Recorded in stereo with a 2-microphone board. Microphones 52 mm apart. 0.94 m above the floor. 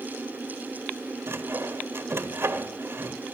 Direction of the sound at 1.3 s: 50° right (ahead or behind).